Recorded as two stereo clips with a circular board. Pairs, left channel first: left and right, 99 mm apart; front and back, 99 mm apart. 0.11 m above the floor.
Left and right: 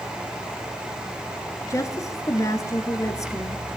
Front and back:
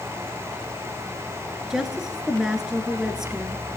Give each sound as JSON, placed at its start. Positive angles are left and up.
{"t": 1.7, "sound": "a woman speaking", "azimuth_deg": 100, "distance_m": 1.3}